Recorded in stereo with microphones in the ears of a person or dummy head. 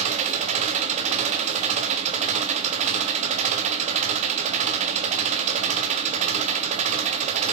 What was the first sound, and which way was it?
An engine running, 35° right (ahead or behind).